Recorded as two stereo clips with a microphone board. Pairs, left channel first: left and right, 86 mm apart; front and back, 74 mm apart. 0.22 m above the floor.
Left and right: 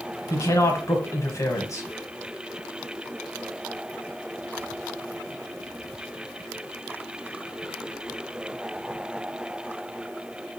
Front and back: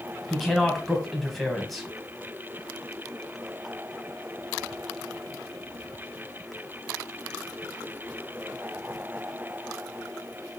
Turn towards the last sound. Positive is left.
turn(degrees=90)